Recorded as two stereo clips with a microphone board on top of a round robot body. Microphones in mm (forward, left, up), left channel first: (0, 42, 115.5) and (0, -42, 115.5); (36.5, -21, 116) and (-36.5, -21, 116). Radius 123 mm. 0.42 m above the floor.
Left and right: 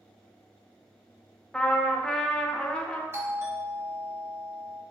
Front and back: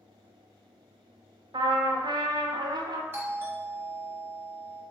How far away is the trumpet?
About 0.6 m.